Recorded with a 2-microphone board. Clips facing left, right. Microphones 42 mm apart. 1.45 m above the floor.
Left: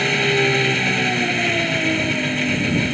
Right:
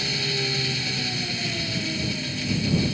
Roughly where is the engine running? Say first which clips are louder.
Left 10 dB; left.